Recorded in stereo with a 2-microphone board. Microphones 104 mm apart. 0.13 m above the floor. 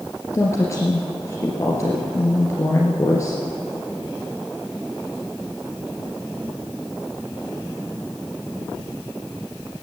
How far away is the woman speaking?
About 2 m.